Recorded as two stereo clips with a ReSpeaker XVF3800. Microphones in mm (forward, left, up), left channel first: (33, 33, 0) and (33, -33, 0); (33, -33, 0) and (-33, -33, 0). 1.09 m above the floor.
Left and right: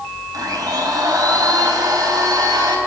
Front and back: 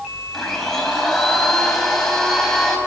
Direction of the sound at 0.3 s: 80° right.